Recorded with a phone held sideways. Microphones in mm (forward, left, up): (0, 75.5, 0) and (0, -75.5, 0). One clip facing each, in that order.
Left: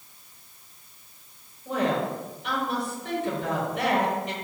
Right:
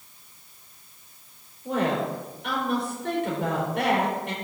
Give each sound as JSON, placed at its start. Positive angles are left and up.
{"t": 1.6, "sound": "a woman speaking", "side_deg": -70, "distance_m": 4.5}